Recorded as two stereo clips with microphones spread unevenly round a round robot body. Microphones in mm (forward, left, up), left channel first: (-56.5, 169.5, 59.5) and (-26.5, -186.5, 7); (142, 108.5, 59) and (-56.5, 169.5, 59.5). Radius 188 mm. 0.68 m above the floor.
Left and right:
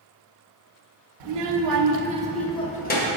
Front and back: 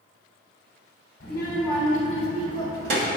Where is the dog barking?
No dog barking in this recording.